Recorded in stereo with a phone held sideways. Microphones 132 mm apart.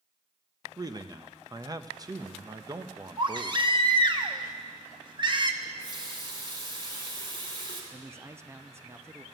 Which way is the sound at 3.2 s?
35° right (ahead or behind).